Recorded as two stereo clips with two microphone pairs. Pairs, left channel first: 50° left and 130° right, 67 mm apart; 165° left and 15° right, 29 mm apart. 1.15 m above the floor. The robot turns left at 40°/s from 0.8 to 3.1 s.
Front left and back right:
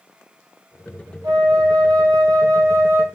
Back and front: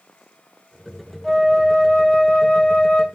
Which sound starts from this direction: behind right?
A flute, at 1.2 s.